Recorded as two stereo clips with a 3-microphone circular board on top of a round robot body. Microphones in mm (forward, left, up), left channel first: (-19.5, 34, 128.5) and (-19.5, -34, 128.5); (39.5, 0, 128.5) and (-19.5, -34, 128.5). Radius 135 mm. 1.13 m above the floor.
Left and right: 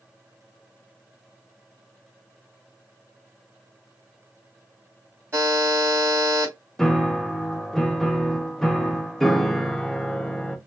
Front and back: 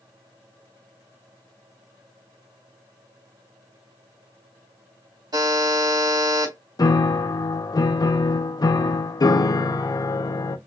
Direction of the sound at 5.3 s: 145° right.